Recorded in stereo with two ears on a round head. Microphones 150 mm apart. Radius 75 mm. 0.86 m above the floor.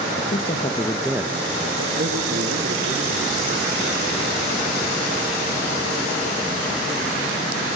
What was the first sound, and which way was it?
A man speaking, 50° left (ahead or behind).